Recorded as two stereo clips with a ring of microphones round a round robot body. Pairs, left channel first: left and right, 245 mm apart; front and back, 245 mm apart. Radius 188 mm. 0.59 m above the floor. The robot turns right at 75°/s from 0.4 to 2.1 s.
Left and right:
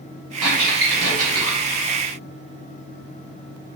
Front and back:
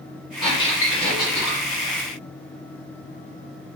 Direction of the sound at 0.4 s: 90° right.